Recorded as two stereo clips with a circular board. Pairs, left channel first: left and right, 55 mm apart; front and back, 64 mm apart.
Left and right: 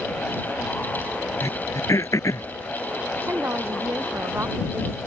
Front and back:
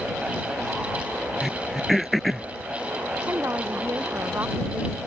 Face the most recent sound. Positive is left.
turn(degrees=-130)